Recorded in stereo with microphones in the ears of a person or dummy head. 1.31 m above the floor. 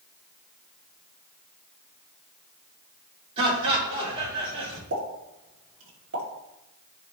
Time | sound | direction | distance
3.4 | laughter | 30° right (ahead or behind) | 5 m
4.9 | a pop | 70° right (ahead or behind) | 3 m